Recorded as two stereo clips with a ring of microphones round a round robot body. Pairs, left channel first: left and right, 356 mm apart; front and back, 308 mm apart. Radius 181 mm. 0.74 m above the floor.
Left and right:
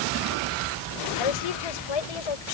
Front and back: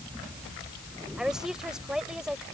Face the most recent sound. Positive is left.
turn(degrees=90)